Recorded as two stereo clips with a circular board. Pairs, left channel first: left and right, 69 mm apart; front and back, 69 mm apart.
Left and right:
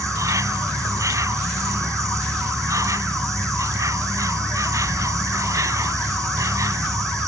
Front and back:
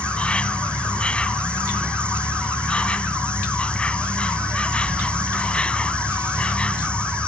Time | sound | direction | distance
0.0 | an insect | 70° right | ?